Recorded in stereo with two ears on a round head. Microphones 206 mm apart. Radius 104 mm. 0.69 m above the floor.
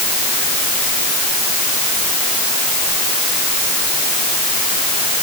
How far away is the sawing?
No sawing in this recording.